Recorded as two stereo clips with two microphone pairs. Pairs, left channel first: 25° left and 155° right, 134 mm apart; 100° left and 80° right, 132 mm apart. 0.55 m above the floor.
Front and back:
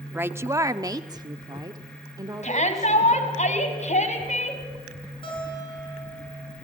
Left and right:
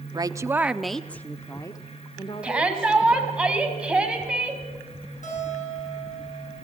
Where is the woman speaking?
95° right, 0.7 m; by 3.4 s 145° left, 1.9 m.